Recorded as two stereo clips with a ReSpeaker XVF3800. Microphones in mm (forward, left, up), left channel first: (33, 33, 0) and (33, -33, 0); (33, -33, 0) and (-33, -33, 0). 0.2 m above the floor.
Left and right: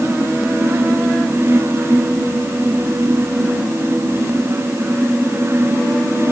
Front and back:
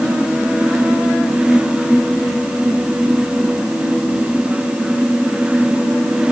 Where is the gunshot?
I don't hear a gunshot.